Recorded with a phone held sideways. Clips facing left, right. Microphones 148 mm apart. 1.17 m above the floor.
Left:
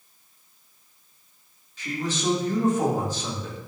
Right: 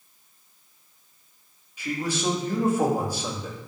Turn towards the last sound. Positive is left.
turn(degrees=-10)  # may be behind; listen again after turning